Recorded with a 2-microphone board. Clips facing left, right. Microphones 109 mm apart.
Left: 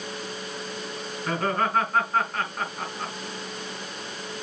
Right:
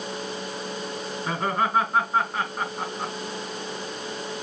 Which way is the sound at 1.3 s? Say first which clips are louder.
Even; 10° right (ahead or behind).